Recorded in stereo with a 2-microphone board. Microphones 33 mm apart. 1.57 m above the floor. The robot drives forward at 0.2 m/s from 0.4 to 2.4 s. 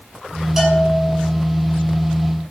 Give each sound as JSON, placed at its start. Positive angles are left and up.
{"t": 0.6, "sound": "a bell", "side_deg": -5, "distance_m": 8.5}